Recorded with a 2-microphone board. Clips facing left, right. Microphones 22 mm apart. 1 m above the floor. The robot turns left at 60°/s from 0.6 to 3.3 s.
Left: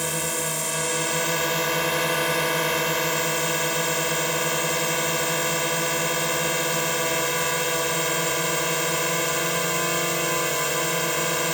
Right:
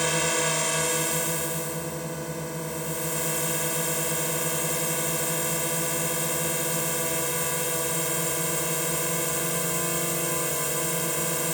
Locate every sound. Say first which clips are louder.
0.0 s a drone: right 2 dB; 165° right; by 11.5 s 35° left